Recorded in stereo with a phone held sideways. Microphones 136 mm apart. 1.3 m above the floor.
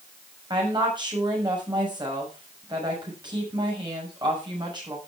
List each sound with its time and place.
0.5 s a woman speaking: 35° right (ahead or behind), 6 m